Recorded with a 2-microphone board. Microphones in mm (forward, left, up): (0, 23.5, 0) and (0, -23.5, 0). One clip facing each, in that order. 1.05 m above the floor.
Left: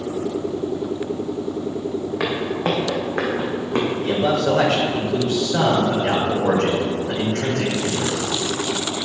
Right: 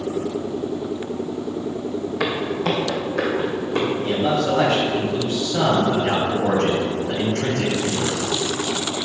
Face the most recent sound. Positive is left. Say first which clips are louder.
# left 1 dB
turn(degrees=75)  # may be behind; listen again after turning